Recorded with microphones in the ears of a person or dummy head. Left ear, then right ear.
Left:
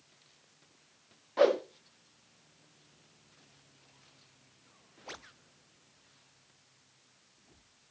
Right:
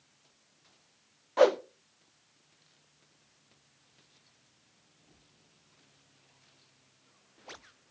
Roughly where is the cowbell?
No cowbell in this recording.